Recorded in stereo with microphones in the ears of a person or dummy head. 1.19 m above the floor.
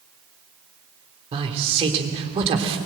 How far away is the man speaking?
About 3 m.